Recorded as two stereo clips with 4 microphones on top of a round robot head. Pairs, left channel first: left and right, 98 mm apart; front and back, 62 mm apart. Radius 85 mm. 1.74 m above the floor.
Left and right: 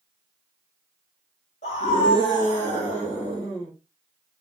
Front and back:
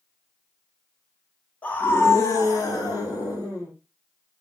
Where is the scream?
65° left, 1.3 m; by 3.7 s 10° right, 2 m.